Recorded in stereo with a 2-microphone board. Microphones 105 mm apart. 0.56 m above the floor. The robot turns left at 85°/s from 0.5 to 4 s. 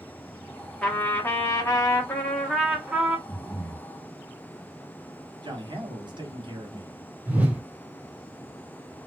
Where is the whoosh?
15° right (ahead or behind), 1.0 m.